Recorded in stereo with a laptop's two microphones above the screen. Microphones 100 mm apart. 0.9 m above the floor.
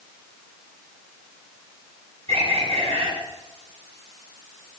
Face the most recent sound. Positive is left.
turn(degrees=-85)